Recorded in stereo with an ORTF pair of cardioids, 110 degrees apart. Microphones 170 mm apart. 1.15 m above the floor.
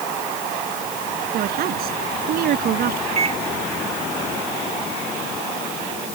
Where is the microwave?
35° right.